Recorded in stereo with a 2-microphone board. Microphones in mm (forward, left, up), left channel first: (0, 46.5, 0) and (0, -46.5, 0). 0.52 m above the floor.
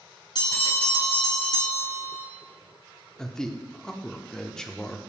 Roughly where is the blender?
No blender in this recording.